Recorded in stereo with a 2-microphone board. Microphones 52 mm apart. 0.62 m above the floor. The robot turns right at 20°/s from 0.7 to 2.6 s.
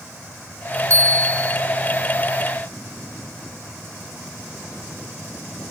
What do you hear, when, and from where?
0.9 s a bell: 60° right (ahead or behind), 1.2 m; by 1.6 s 70° right (ahead or behind), 1.2 m